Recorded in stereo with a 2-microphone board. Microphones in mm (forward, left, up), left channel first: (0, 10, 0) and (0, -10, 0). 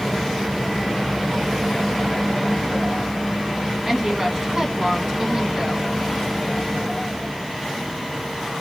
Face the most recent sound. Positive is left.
turn(degrees=-25)  # may be behind; listen again after turning